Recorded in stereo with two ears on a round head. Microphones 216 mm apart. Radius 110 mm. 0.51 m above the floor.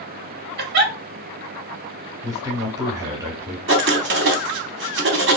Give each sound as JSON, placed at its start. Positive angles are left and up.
{"t": 0.6, "sound": "a giggle", "side_deg": -45, "distance_m": 0.8}
{"t": 2.2, "sound": "a man speaking", "side_deg": -15, "distance_m": 0.9}
{"t": 3.7, "sound": "writing", "side_deg": -50, "distance_m": 0.8}